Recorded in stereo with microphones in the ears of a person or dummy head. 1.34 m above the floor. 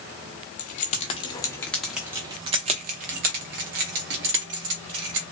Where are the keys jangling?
45° left (ahead or behind), 0.9 m; by 5.2 s 65° right (ahead or behind), 1.9 m.